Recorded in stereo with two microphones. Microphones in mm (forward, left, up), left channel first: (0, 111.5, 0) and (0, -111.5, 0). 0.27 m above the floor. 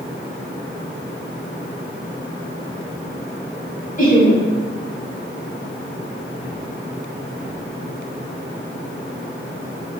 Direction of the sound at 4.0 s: 40° left (ahead or behind).